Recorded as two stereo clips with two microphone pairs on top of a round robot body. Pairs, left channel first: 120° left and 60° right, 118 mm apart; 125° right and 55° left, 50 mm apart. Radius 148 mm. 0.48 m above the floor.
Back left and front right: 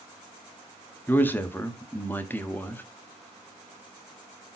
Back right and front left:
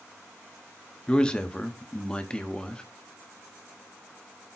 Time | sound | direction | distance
1.1 | a man speaking | 175° left | 1.4 m